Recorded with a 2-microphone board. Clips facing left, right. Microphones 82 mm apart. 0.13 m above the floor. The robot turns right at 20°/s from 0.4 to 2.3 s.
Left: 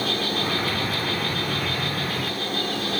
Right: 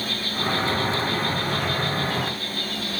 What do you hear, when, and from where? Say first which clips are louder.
0.0 s an insect: left 2 dB; 95° left, 1.2 m; by 3.0 s 130° left, 1.2 m